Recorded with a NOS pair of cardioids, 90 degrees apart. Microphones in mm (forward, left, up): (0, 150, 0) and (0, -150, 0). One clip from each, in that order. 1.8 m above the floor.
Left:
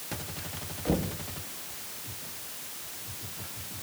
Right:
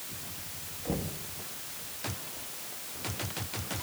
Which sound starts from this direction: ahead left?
Knocking, at 0.8 s.